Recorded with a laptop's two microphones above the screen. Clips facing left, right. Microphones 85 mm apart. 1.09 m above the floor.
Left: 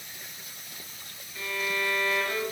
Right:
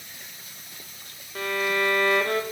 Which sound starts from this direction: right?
A violin, at 1.4 s.